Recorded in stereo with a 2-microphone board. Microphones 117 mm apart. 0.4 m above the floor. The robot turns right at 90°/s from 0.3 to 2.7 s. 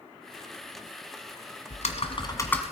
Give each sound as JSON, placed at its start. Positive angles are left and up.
{"t": 1.7, "sound": "typing on a keyboard", "azimuth_deg": 90, "distance_m": 1.6}